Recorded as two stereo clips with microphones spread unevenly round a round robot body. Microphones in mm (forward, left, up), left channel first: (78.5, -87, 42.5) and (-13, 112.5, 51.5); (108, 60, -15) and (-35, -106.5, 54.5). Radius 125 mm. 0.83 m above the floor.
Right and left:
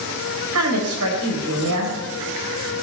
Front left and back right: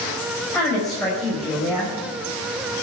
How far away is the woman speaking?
About 4.5 m.